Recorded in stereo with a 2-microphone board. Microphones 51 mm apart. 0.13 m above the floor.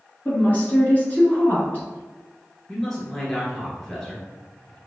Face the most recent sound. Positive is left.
turn(degrees=5)  # may be behind; listen again after turning